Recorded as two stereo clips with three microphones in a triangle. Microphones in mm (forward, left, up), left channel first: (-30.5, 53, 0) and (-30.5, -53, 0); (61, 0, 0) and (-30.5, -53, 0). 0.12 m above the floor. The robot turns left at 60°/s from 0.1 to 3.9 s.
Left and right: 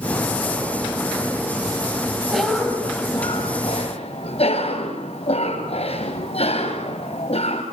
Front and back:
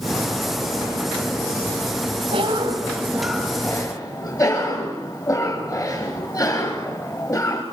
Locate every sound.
2.3 s a cough: straight behind, 4 m; by 7.6 s 85° left, 4 m